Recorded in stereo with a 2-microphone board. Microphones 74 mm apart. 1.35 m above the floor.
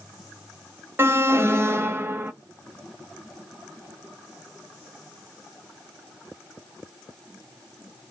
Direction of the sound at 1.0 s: 30° right (ahead or behind).